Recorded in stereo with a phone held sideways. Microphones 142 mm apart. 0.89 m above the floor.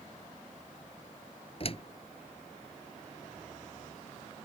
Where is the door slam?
40° left (ahead or behind).